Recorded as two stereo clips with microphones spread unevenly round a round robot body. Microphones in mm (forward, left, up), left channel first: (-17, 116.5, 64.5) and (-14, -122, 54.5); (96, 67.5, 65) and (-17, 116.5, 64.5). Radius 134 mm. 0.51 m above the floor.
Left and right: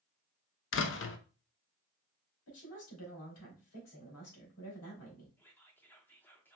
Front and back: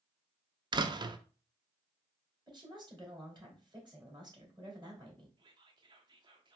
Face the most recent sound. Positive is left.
turn(degrees=170)